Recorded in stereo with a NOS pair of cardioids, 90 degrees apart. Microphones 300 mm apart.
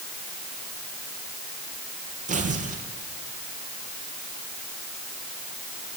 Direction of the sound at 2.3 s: 25° right.